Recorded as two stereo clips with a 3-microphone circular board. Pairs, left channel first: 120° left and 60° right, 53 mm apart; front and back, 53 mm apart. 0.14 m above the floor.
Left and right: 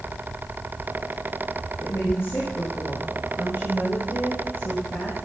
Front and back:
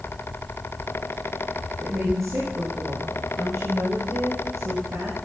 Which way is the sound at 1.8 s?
160° left.